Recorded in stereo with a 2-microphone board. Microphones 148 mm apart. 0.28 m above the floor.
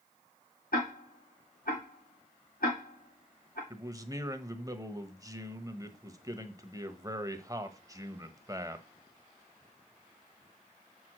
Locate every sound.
0.7 s ticking: 80° left, 3.5 m
3.7 s a man speaking: 25° right (ahead or behind), 1.0 m